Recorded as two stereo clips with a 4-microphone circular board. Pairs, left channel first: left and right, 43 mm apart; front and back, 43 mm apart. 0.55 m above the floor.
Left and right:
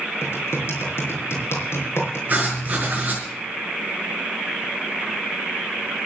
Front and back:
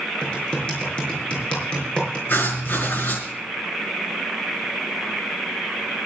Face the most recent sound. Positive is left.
turn(degrees=-35)